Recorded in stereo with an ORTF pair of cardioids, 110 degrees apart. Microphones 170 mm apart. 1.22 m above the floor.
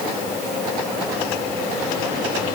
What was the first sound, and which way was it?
Only background noise.